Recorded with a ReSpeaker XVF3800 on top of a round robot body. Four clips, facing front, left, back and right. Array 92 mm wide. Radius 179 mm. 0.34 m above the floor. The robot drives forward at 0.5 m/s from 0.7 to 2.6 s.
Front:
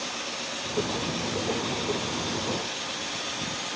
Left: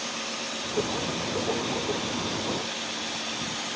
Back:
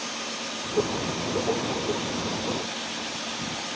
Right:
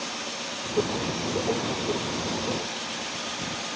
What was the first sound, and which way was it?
Only background noise.